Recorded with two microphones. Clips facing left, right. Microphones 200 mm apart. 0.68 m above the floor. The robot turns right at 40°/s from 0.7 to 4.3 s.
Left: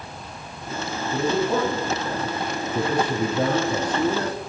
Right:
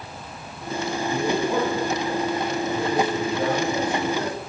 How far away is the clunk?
I don't hear a clunk.